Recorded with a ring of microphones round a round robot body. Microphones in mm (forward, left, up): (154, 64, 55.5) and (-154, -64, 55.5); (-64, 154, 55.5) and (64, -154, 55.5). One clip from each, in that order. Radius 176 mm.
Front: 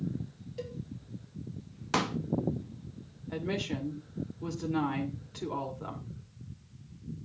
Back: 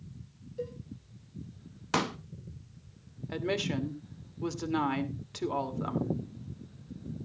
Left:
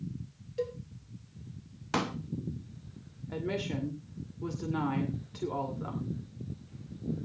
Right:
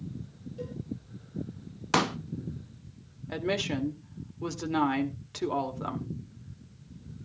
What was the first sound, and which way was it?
A cowbell, 70° left.